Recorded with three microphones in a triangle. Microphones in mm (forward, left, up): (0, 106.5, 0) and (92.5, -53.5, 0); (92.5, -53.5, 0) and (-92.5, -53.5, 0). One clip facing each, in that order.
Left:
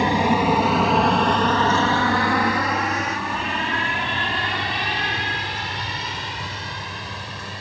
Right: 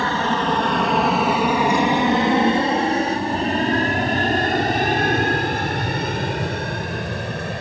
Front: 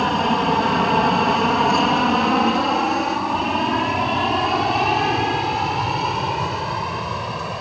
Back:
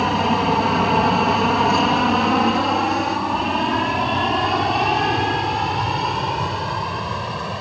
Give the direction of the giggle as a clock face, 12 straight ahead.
I don't hear a giggle.